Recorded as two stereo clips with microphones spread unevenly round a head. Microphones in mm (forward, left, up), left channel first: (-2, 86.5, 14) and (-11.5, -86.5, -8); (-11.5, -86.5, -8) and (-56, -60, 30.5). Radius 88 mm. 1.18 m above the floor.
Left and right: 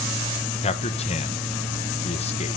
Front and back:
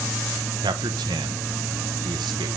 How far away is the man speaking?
About 1.2 m.